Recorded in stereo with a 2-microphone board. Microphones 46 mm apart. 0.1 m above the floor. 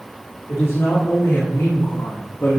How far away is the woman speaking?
About 6.5 m.